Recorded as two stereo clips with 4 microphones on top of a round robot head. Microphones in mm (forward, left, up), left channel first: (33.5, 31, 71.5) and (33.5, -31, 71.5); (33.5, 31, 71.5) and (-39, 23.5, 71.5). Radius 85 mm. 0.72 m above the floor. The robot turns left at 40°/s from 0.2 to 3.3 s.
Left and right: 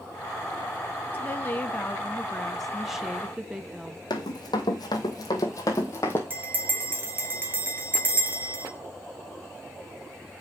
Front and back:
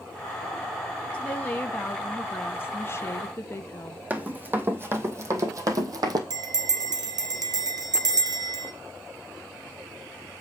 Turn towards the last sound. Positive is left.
turn(degrees=-150)